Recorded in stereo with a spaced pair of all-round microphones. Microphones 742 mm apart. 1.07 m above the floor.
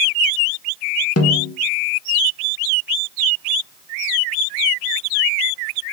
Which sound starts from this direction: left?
A snare drum, at 1.2 s.